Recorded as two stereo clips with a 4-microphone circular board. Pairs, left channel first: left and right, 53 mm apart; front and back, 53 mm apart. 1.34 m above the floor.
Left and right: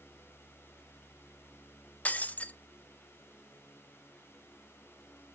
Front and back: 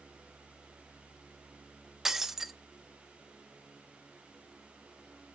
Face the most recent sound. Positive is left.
turn(degrees=105)